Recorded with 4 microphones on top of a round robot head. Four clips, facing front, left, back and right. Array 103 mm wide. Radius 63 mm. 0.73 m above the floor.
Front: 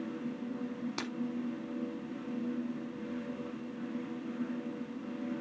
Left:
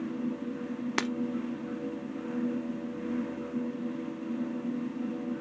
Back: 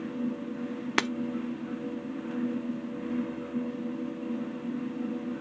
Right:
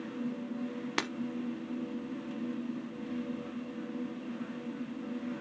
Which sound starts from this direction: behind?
Breaking glass, at 1.0 s.